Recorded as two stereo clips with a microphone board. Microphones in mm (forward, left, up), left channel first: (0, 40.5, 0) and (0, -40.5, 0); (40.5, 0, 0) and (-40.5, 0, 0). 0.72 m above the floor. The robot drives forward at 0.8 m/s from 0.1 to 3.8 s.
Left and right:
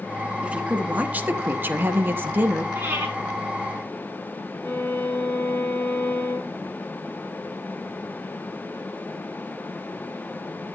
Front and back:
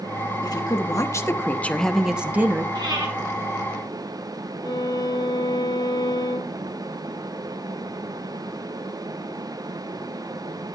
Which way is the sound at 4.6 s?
25° left.